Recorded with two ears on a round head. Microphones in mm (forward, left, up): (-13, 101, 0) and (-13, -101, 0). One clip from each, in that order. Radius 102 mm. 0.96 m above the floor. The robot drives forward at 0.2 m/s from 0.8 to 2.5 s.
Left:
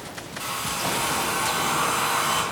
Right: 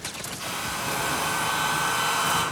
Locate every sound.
0.4 s a hair dryer: 40° left (ahead or behind), 1.6 m; by 2.4 s 35° left (ahead or behind), 1.8 m